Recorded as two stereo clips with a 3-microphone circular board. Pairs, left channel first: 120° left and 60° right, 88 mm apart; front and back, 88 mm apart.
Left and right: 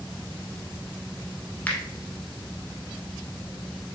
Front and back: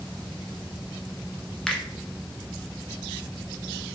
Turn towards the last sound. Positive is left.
turn(degrees=75)